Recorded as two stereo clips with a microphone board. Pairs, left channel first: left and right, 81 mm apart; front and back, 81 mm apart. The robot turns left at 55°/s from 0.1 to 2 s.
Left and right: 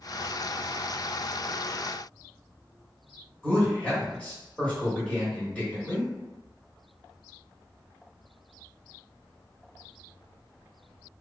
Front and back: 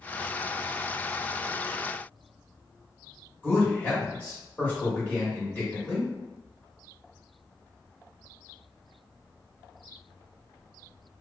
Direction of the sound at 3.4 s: 40° left.